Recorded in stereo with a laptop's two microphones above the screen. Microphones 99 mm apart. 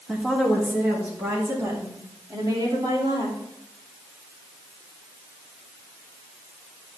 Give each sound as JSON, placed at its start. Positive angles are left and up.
{"t": 0.1, "sound": "a woman speaking", "side_deg": -5, "distance_m": 1.6}